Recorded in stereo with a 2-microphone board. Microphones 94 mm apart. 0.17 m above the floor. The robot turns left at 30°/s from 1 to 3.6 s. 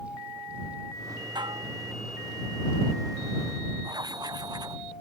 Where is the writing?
45° right (ahead or behind).